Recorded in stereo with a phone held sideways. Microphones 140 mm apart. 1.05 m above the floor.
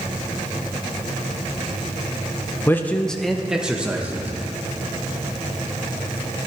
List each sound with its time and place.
2.7 s a man speaking: 15° left (ahead or behind), 0.7 m; by 4.3 s 15° right (ahead or behind), 1.5 m